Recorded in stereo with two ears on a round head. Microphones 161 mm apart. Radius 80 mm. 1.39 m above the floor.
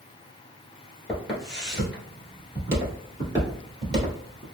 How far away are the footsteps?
About 1.7 m.